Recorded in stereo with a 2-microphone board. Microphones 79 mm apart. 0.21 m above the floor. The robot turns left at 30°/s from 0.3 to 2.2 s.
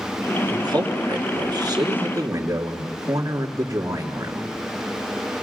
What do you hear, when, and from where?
0.5 s a man speaking: 80° right, 3 m; by 5.3 s 130° right, 3 m